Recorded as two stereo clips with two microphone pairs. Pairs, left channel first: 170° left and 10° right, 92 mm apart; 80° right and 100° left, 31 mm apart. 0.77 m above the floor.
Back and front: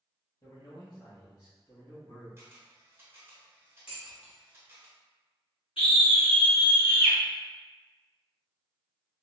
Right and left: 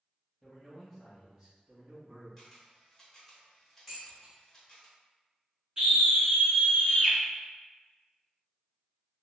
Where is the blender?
I don't hear a blender.